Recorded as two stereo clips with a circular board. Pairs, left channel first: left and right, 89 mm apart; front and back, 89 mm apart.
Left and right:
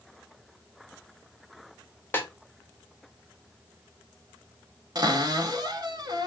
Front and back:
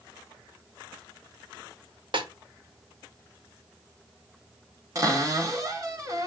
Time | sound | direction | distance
2.1 | a snare drum | 155° left | 0.9 m
5.0 | a cupboard door | 130° right | 1.1 m